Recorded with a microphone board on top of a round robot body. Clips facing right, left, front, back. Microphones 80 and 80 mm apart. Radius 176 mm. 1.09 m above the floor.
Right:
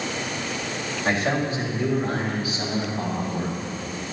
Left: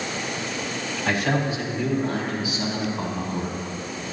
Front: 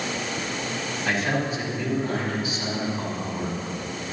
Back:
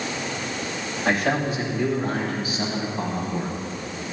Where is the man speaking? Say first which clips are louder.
Even, back 3 dB; 140° right, 4.5 m; by 3.7 s 135° right, 7 m.